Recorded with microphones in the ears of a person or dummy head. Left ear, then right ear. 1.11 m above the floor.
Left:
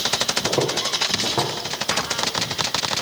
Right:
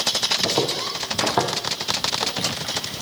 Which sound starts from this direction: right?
Footsteps, at 0.4 s.